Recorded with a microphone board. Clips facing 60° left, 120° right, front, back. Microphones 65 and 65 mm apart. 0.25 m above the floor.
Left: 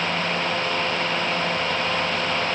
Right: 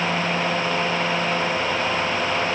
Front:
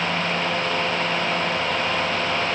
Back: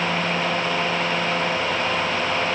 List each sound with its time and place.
Only background noise.